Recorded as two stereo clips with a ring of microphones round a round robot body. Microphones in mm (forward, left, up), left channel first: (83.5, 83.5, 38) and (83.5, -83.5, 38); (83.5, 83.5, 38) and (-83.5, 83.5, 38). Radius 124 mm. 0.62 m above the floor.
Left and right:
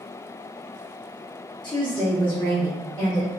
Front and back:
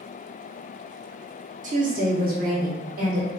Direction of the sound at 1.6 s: 150° left.